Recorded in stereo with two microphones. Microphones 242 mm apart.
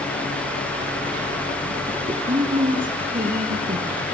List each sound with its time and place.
1.9 s a woman speaking: 25° right (ahead or behind), 1.7 m; by 4.0 s 35° right (ahead or behind), 3.5 m